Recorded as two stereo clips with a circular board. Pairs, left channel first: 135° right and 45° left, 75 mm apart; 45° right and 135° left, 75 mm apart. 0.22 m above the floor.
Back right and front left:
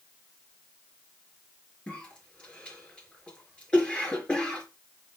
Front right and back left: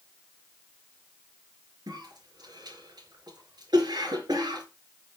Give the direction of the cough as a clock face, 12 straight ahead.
7 o'clock.